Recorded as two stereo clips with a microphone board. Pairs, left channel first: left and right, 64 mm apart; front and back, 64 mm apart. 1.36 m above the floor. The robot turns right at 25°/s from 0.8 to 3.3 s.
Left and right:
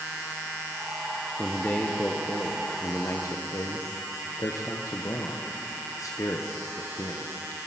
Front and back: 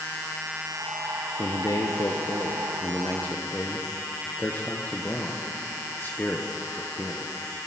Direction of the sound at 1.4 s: 10° left.